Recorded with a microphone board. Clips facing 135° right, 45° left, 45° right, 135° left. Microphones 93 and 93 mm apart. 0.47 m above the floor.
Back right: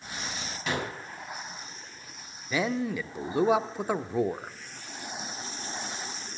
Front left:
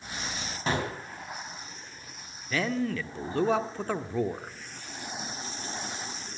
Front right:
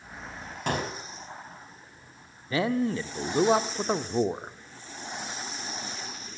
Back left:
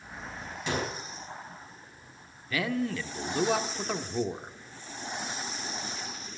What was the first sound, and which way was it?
A gunshot, 10° right.